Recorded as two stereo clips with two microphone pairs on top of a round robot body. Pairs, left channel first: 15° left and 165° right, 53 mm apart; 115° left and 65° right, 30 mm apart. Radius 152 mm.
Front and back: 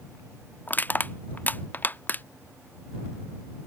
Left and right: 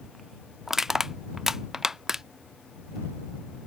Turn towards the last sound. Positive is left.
turn(degrees=10)